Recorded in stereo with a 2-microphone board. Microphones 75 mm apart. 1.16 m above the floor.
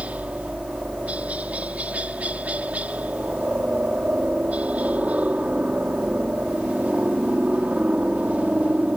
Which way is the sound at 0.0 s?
20° right (ahead or behind).